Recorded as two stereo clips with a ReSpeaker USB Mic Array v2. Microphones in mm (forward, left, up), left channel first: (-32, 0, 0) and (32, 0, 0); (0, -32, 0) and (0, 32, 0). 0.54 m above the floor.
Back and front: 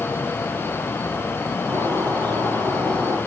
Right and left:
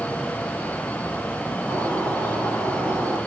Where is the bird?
20° right, 6 m.